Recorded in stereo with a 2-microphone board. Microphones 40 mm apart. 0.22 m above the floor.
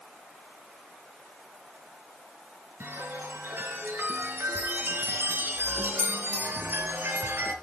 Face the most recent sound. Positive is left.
turn(degrees=-65)  # may be behind; listen again after turning